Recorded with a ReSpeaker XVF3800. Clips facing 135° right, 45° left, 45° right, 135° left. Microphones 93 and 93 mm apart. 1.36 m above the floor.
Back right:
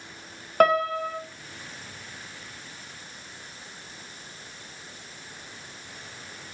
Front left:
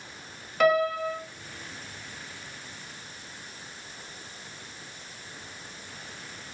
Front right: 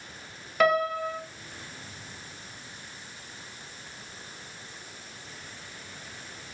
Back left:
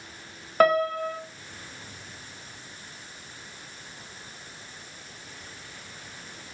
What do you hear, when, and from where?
0.6 s a piano: 175° right, 0.7 m